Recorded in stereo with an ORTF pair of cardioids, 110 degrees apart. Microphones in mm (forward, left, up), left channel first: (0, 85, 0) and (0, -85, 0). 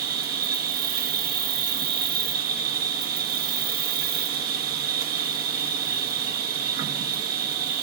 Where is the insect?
65° right, 1.5 m.